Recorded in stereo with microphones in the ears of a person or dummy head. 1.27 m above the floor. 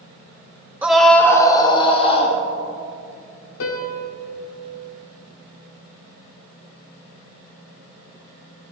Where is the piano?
75° left (ahead or behind), 1.9 m.